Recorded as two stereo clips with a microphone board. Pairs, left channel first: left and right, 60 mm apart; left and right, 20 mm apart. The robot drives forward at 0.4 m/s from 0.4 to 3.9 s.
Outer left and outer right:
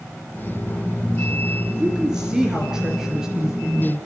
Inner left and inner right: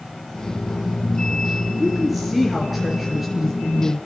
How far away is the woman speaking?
About 3 m.